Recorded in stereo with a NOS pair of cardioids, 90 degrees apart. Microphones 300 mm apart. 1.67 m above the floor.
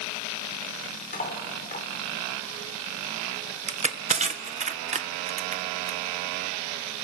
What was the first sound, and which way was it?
Cutlery clinking, 30° left.